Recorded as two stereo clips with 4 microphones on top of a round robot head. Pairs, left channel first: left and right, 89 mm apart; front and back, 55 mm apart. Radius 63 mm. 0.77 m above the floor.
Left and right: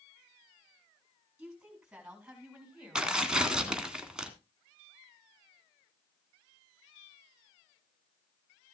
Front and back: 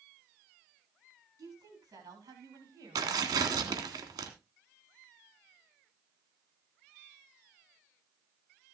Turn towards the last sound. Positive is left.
turn(degrees=-170)